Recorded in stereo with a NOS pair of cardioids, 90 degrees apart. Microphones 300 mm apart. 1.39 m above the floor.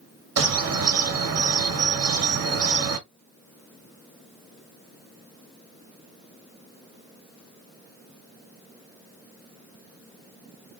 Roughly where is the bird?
Ahead right.